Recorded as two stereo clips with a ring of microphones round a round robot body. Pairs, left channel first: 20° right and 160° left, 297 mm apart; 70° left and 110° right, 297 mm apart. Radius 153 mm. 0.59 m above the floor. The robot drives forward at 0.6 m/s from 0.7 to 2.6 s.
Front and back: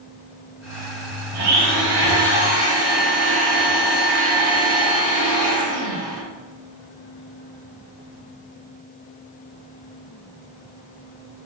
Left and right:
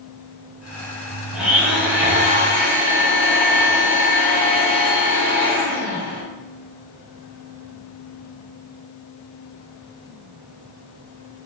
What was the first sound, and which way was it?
A blender, 160° left.